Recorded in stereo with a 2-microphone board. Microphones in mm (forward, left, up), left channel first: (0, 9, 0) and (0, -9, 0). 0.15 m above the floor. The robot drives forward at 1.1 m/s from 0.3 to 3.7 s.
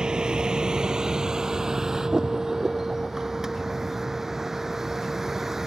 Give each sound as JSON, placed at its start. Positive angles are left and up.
{"t": 0.0, "sound": "a vehicle", "side_deg": -55}